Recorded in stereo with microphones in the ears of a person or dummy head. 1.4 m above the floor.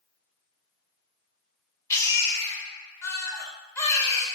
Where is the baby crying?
15° left (ahead or behind), 0.7 m.